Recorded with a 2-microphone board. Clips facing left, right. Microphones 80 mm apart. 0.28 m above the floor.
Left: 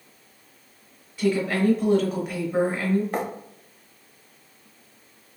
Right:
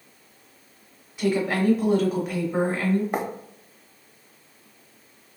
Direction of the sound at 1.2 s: 20° right (ahead or behind).